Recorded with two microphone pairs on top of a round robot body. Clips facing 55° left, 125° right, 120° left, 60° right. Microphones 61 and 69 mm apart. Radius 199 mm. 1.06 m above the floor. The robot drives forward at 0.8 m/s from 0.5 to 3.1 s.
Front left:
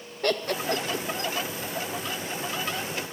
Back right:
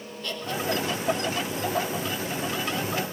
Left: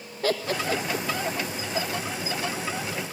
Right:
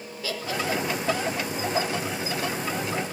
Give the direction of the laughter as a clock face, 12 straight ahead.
9 o'clock.